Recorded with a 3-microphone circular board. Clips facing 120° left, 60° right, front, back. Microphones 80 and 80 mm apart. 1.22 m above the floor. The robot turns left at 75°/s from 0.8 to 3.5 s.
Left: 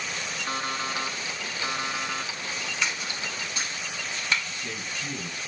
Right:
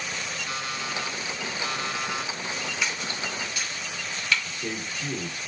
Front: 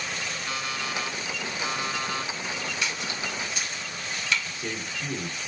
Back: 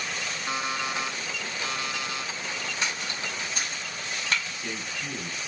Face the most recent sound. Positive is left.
turn(degrees=-65)